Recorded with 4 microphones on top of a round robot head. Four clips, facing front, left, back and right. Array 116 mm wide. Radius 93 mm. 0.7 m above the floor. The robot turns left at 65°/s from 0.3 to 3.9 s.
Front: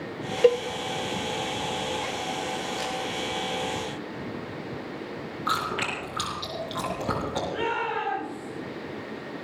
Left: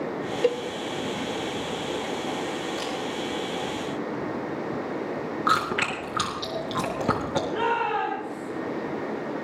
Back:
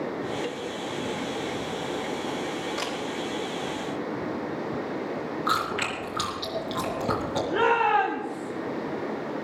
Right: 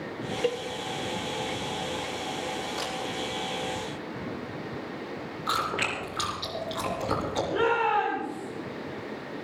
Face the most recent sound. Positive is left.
turn(degrees=170)